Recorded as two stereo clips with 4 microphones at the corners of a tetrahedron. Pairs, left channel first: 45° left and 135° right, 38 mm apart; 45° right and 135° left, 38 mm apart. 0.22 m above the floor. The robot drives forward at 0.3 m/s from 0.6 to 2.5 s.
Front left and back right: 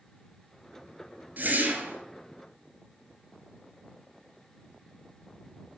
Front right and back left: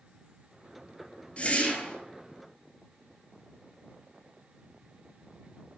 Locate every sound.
1.4 s a whoosh: 100° right, 1.9 m; by 2.0 s 105° right, 1.9 m